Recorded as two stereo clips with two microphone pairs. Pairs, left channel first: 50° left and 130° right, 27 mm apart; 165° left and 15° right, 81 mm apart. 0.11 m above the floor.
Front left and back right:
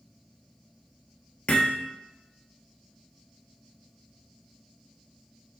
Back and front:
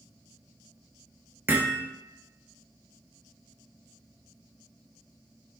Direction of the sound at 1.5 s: 40° left.